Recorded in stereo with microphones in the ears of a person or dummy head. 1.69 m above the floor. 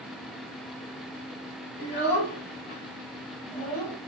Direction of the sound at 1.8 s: 55° left (ahead or behind).